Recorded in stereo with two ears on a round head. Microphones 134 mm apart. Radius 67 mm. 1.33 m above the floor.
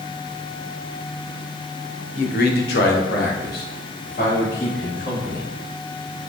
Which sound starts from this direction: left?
A man speaking, at 2.1 s.